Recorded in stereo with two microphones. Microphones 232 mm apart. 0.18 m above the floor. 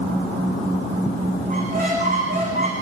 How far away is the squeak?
About 9 m.